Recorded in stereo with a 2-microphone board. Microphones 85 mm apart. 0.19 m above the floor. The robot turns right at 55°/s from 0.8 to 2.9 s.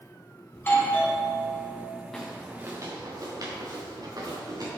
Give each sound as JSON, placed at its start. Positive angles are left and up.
{"t": 0.5, "sound": "a doorbell", "azimuth_deg": 125, "distance_m": 1.6}
{"t": 2.1, "sound": "footsteps", "side_deg": 5, "distance_m": 1.3}